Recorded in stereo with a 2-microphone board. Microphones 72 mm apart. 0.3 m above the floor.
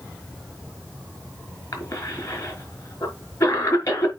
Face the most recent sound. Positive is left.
turn(degrees=50)  # may be behind; listen again after turning